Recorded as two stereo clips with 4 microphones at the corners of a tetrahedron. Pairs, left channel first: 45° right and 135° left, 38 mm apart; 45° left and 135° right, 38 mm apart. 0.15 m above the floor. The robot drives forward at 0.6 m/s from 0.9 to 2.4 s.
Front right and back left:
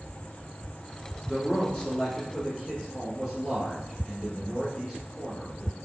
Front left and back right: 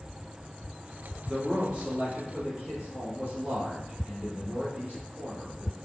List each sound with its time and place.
1.3 s a man speaking: 75° right, 1.3 m; by 5.7 s 125° right, 1.4 m